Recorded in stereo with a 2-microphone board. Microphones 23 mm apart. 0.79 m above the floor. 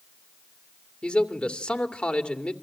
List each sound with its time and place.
1.0 s a man speaking: 60° left (ahead or behind), 2.5 m